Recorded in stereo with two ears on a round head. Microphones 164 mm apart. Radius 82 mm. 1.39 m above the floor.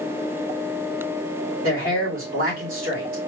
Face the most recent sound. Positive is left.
turn(degrees=-50)  # may be behind; listen again after turning